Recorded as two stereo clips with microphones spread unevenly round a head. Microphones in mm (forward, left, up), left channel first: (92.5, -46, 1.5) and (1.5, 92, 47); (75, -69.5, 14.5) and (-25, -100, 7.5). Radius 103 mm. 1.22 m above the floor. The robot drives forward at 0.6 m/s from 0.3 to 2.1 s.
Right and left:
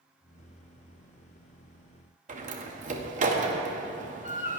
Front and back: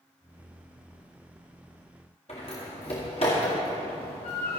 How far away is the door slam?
About 1.7 m.